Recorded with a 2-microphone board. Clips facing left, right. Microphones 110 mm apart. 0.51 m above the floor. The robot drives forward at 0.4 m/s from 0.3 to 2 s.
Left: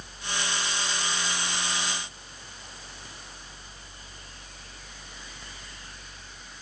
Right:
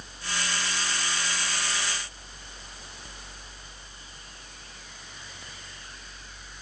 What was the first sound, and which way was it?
Only background noise.